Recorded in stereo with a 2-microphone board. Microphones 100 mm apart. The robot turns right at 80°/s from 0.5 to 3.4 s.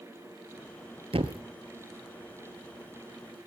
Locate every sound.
1.1 s a thud: 80° right, 0.9 m; by 1.4 s 60° right (ahead or behind), 0.9 m